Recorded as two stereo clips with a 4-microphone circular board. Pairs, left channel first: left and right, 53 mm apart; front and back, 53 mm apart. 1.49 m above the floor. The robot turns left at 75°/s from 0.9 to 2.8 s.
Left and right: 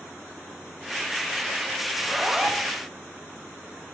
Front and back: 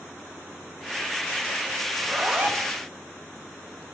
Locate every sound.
1.9 s a zipper: 130° right, 0.8 m; by 2.7 s 170° left, 0.8 m